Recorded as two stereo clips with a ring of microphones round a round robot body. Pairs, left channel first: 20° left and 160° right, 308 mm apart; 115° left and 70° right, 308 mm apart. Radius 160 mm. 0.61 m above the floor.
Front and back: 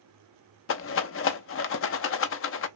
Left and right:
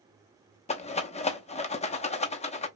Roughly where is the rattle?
Ahead left.